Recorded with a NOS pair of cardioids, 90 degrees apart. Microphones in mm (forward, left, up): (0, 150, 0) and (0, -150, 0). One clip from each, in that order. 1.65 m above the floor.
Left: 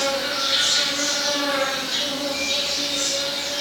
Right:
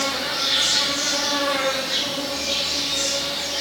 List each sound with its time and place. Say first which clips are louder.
0.0 s an insect: even; 30° right, 1.1 m